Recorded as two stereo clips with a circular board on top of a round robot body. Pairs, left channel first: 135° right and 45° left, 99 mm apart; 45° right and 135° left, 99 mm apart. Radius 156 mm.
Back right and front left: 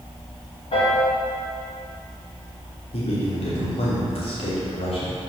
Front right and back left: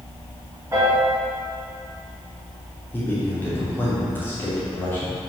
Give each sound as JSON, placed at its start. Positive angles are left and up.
{"t": 0.7, "sound": "a piano", "azimuth_deg": -160, "distance_m": 2.5}
{"t": 2.9, "sound": "a man speaking", "azimuth_deg": -115, "distance_m": 3.0}